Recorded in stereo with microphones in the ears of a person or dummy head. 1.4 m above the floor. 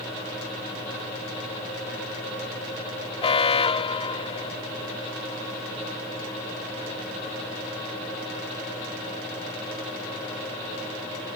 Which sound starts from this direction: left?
An alarm, at 3.2 s.